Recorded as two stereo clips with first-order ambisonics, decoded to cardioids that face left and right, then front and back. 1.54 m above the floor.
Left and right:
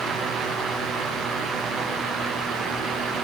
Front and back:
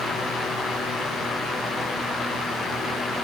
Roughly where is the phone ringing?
No phone ringing in this recording.